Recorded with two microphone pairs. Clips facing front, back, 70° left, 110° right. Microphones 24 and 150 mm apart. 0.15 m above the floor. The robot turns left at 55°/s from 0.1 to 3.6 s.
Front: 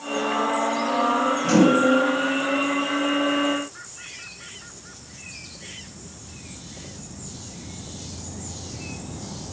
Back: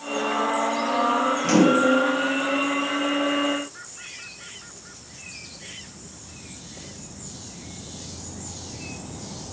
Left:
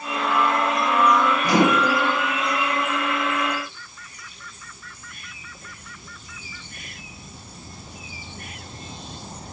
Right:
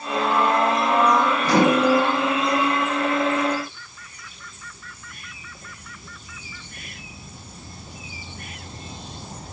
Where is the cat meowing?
I don't hear a cat meowing.